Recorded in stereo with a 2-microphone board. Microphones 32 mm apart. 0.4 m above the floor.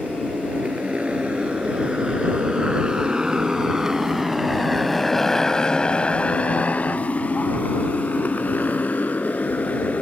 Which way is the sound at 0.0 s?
45° right (ahead or behind).